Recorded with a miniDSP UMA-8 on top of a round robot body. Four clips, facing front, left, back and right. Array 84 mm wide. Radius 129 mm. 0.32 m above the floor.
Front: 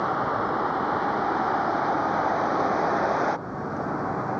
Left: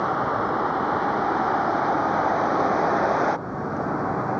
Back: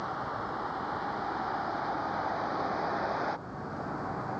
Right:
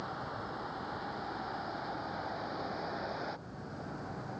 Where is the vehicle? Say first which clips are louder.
Left 17 dB, front 10 dB; 55° left; by 4.4 s 65° left.